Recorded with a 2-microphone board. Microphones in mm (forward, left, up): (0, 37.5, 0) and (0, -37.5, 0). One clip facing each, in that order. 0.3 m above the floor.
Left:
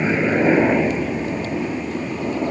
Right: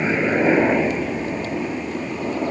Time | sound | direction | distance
0.0 | a helicopter | centre (ahead or behind) | ?